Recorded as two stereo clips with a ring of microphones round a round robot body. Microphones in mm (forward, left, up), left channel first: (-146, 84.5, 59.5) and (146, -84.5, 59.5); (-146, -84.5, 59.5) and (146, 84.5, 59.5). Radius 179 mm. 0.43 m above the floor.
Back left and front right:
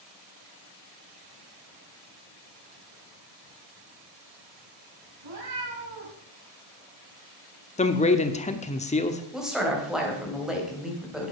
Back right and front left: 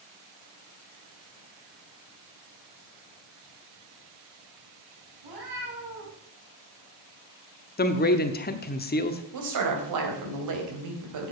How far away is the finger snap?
I don't hear a finger snap.